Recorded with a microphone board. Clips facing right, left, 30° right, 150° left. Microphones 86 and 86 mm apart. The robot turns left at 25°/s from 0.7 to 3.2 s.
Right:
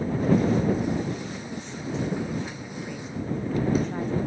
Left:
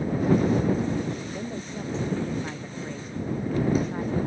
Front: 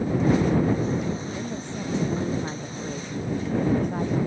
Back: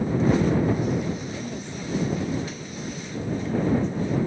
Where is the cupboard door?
I don't hear a cupboard door.